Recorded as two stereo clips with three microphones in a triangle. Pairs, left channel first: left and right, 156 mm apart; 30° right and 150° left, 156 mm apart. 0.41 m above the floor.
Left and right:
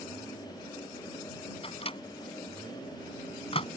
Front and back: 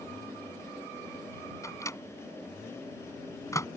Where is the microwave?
40° left.